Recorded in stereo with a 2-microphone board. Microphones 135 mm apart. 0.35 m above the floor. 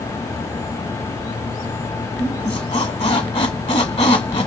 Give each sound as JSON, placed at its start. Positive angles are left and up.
{"t": 2.2, "sound": "a squeak", "side_deg": 50, "distance_m": 1.2}